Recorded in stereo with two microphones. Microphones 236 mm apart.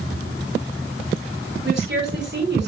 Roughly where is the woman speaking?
Right.